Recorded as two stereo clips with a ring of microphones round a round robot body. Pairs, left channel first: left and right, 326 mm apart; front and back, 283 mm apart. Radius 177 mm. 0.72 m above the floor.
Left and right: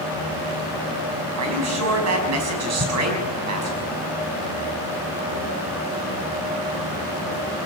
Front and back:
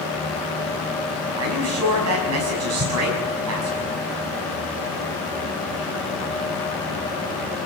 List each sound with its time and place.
1.4 s a man speaking: 135° right, 5.5 m
2.8 s an explosion: 150° right, 3.5 m